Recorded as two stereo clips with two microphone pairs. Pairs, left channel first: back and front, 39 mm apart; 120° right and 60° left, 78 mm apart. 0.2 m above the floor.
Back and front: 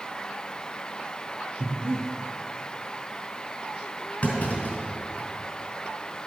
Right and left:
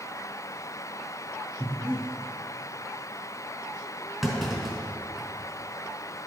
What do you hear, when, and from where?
1.6 s breathing: 5° right, 2.5 m
4.2 s a clunk: 150° left, 2.5 m